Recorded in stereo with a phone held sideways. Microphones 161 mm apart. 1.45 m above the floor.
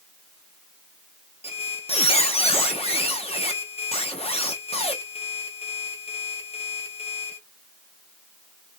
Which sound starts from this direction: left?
A squeak, at 1.4 s.